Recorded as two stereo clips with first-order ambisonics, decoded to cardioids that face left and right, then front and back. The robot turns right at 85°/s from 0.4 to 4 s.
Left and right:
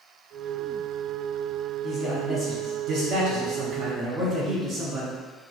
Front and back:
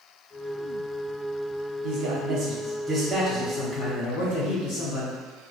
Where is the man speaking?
155° left, 0.8 m; by 5.2 s 20° right, 0.8 m.